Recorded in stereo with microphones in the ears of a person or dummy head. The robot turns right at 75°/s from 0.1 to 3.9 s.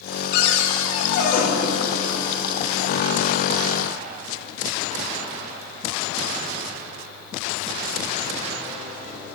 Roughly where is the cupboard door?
Ahead left.